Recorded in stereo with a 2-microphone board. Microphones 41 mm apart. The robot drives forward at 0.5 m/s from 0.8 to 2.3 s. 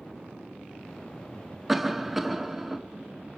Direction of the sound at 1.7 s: 5° right (ahead or behind).